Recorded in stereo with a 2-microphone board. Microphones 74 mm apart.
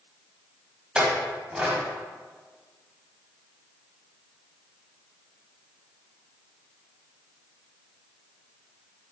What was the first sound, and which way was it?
A clink, 15° right (ahead or behind).